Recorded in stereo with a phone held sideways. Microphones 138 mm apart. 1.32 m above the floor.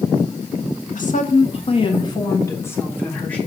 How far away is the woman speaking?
About 0.9 m.